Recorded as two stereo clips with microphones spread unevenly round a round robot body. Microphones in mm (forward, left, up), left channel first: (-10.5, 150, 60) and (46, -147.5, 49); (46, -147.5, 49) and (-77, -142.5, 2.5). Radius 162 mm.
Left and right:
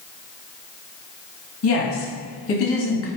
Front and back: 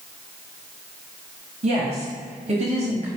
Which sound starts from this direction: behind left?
A woman speaking, at 1.6 s.